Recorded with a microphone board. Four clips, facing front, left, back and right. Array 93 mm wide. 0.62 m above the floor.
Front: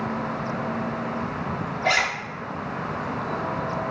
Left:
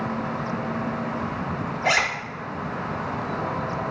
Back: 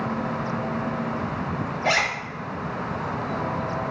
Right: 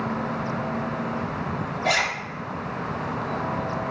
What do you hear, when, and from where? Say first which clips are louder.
1.8 s a zipper: left 2 dB, even; 105° left, 1.0 m